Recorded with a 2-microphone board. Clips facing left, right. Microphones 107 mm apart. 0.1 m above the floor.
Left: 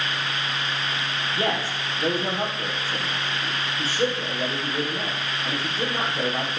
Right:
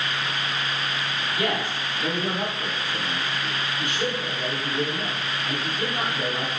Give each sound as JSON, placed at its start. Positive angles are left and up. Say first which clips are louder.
{"t": 1.4, "sound": "a man speaking", "louder": "left 1 dB", "side_deg": 30, "distance_m": 3.5}